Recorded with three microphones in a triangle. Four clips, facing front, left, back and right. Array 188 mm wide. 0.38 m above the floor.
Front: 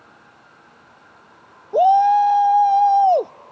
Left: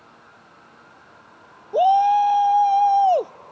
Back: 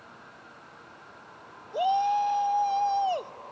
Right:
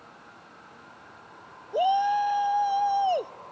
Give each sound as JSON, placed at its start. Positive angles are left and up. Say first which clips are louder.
{"t": 1.7, "sound": "a shout", "louder": "left 8 dB, front 11 dB", "azimuth_deg": 20}